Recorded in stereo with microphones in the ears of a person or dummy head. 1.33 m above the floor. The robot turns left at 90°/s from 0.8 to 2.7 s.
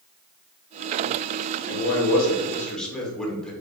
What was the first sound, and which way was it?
A man speaking, 100° left.